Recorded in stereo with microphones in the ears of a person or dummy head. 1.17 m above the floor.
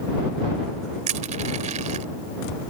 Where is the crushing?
40° right (ahead or behind).